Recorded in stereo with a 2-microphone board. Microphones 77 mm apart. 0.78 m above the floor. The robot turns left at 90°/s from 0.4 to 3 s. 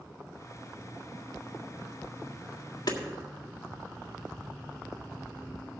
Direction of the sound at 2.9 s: 65° left (ahead or behind).